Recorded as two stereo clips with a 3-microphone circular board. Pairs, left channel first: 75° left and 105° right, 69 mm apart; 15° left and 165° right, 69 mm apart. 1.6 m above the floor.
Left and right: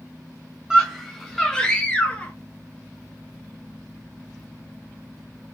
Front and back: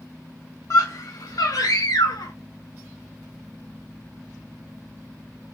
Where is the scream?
25° right, 1.6 m; by 2.3 s 5° left, 2 m.